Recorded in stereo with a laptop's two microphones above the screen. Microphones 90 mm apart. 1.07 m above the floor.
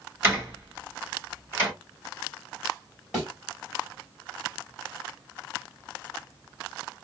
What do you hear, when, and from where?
0.2 s a door slam: 25° right (ahead or behind), 2.5 m
3.1 s a thud: 5° right (ahead or behind), 2.5 m